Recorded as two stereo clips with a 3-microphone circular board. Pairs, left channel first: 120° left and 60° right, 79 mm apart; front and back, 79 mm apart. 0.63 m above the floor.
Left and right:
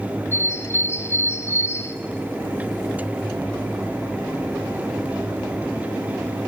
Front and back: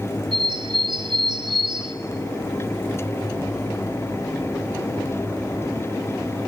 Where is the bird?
175° left, 0.8 m.